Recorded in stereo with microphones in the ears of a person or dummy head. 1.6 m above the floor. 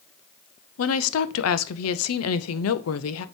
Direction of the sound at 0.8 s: 85° left.